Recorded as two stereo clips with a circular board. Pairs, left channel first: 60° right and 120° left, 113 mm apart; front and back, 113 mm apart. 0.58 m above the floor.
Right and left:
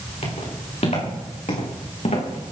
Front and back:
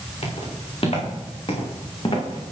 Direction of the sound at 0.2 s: 35° right.